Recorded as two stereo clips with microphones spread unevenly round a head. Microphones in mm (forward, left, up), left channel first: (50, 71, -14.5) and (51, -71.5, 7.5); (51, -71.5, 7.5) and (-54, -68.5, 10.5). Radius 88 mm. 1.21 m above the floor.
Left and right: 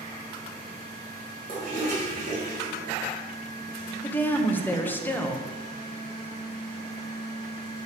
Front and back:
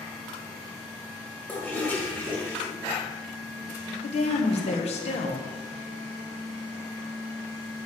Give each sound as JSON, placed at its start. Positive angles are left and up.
{"t": 1.5, "sound": "a toilet flushing", "azimuth_deg": -75, "distance_m": 4.0}
{"t": 4.0, "sound": "a woman speaking", "azimuth_deg": 20, "distance_m": 1.1}